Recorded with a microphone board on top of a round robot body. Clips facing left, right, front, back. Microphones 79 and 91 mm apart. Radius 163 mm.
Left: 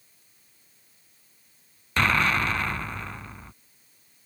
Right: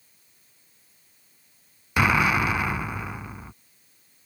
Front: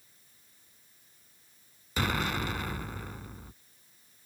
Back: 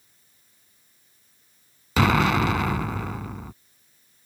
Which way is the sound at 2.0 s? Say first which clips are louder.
Right 2 dB, back 11 dB; 170° right.